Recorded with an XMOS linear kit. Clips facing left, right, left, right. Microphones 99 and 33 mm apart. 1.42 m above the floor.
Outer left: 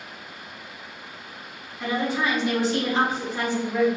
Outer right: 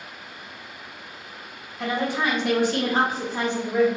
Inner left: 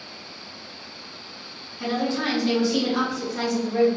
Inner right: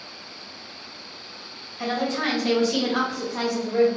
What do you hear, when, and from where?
1.8 s a woman speaking: 75° right (ahead or behind), 1.2 m; by 3.9 s 5° right (ahead or behind), 0.8 m